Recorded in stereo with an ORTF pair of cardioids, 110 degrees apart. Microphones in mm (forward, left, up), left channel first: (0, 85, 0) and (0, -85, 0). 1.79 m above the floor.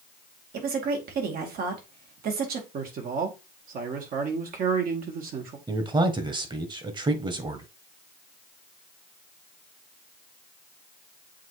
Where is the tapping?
No tapping in this recording.